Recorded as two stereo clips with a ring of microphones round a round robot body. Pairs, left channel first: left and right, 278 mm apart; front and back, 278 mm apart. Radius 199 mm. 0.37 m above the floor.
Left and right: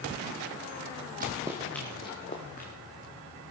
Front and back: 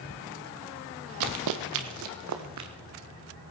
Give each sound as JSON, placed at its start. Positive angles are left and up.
{"t": 1.2, "sound": "running footsteps", "azimuth_deg": -160, "distance_m": 0.9}